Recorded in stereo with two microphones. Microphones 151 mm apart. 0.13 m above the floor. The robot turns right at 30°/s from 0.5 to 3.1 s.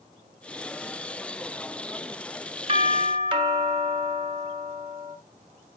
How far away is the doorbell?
About 1.7 m.